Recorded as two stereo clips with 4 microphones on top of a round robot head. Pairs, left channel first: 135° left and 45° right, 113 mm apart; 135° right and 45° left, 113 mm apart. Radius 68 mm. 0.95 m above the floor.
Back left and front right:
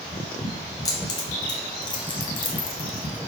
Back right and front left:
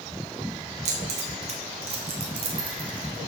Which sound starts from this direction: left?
Keys jangling, at 0.8 s.